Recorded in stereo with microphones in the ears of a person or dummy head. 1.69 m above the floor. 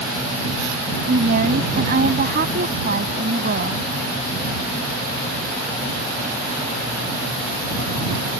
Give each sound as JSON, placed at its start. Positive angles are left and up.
{"t": 1.1, "sound": "a woman speaking", "side_deg": -55}